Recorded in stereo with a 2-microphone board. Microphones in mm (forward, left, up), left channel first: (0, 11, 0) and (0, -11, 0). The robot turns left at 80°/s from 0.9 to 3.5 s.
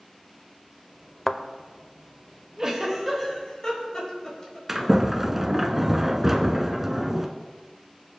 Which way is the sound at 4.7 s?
15° right (ahead or behind).